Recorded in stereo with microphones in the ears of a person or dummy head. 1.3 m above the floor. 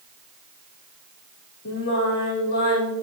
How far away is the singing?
About 4.5 m.